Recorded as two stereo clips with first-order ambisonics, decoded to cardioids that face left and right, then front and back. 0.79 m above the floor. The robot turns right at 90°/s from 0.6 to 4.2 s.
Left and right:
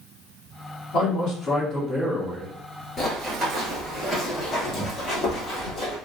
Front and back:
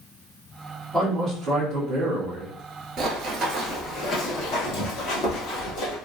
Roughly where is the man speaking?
Left.